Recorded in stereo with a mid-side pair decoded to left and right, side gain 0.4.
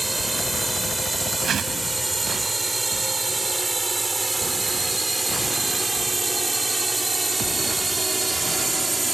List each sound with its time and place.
0.0 s a drone: 20° right
1.4 s a whoosh: 60° right